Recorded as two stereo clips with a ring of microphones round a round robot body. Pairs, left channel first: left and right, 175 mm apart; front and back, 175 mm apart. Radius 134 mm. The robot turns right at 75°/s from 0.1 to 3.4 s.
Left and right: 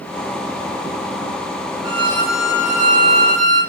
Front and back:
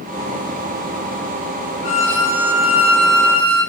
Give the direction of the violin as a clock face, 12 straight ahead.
11 o'clock.